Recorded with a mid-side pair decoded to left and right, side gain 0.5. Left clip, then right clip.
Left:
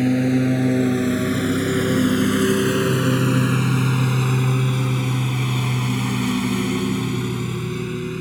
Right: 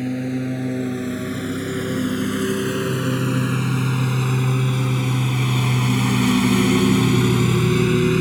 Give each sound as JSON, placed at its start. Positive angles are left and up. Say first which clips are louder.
{"t": 0.0, "sound": "a lawn mower", "louder": "left 6 dB", "azimuth_deg": 40}